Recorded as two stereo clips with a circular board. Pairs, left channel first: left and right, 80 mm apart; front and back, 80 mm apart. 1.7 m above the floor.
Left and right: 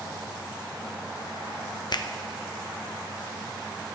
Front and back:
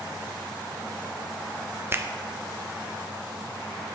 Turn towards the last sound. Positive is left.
turn(degrees=120)